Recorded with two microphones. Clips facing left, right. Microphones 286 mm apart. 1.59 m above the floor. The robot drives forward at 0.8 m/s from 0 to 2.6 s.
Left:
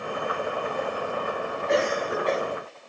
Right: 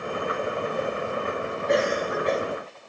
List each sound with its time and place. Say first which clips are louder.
1.7 s a cough: right 1 dB; 20° right (ahead or behind), 3 m; by 2.4 s 15° right (ahead or behind), 3.5 m